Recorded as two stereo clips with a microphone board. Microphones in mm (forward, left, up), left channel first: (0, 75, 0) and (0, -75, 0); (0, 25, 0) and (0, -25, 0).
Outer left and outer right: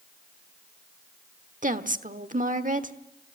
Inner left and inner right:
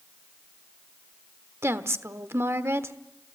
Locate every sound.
1.6 s a woman speaking: 60° right (ahead or behind), 1.2 m